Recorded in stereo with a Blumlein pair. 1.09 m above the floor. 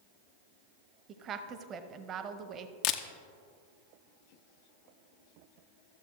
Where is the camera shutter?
40° left, 0.5 m.